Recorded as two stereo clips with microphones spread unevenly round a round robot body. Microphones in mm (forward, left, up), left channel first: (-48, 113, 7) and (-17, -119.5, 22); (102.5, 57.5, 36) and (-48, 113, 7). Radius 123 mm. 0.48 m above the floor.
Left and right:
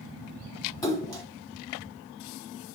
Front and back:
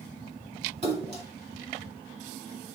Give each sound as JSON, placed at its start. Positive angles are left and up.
{"t": 0.8, "sound": "a splash", "azimuth_deg": 165, "distance_m": 1.9}